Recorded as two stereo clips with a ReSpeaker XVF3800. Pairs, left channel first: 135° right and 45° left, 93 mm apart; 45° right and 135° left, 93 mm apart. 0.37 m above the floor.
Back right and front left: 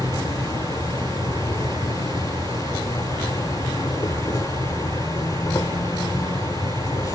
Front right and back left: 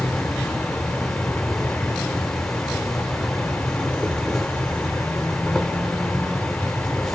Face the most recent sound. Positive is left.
turn(degrees=-130)